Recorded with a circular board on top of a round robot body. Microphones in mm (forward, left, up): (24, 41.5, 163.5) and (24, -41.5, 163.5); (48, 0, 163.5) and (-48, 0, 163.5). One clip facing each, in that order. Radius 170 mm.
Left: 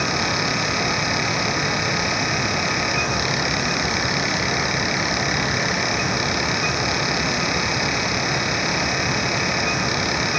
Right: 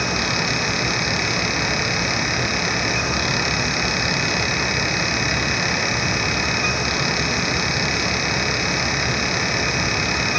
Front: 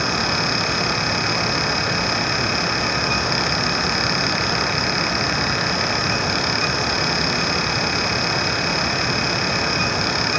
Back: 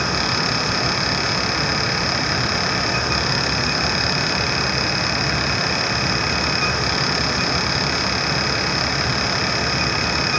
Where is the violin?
I don't hear a violin.